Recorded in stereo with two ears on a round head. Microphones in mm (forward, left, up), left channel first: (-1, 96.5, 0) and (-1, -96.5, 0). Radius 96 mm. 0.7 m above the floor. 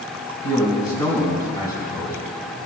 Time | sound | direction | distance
0.4 | a man speaking | 15° left (ahead or behind) | 5 m